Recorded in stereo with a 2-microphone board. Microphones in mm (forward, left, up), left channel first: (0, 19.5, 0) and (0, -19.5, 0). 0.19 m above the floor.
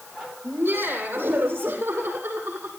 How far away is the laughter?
About 6.5 m.